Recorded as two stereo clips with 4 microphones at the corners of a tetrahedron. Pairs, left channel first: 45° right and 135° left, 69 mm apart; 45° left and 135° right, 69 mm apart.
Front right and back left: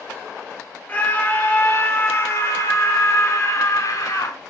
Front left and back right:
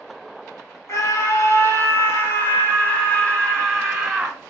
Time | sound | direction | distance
0.9 | a scream | 20° left | 3 m